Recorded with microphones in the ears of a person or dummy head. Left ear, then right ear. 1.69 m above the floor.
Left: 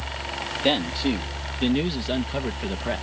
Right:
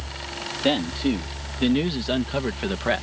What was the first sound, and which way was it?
A man speaking, 25° left (ahead or behind).